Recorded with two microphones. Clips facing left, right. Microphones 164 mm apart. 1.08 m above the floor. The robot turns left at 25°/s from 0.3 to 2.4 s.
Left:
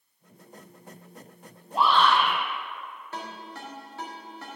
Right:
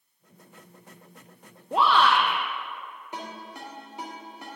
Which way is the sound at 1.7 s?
75° right (ahead or behind).